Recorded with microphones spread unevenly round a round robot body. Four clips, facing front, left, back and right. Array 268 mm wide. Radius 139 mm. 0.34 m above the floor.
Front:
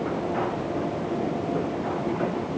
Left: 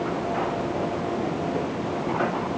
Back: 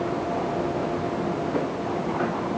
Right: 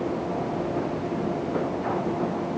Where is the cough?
I don't hear a cough.